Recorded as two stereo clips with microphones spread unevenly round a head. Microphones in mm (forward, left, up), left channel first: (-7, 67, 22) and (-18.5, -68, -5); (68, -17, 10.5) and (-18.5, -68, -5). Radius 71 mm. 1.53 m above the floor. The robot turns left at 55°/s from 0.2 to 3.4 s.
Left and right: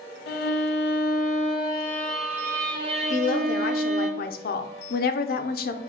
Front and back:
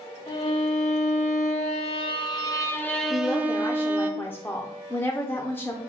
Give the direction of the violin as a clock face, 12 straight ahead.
9 o'clock.